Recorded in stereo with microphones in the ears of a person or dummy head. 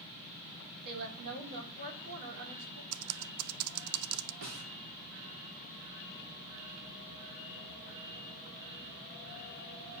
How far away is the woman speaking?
About 2.5 m.